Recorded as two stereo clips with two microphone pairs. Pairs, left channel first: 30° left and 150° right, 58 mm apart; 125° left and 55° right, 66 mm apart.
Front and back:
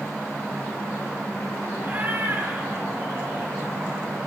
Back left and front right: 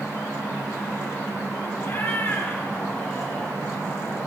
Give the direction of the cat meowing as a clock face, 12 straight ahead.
7 o'clock.